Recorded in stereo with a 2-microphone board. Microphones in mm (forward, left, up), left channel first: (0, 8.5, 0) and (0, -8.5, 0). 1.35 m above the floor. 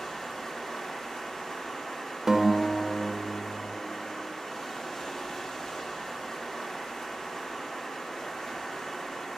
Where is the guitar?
20° right (ahead or behind), 0.8 m.